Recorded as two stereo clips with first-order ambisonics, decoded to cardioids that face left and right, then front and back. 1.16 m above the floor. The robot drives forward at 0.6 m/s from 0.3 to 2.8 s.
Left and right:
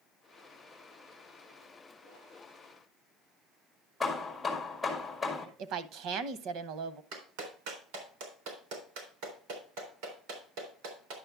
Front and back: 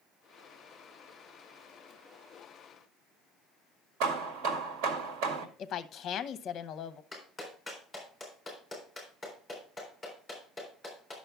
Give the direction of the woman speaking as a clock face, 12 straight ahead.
2 o'clock.